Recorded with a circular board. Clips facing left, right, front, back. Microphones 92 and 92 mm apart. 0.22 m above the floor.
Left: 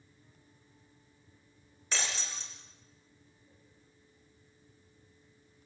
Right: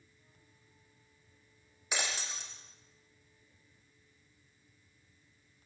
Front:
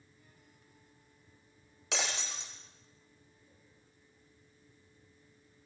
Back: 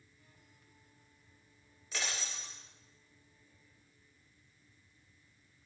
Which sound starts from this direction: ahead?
Breaking glass, at 1.9 s.